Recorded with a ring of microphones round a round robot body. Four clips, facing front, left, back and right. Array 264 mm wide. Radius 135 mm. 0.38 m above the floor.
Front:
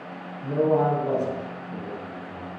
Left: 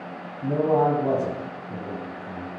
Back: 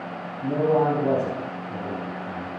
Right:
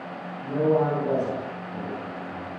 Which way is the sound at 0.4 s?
120° left.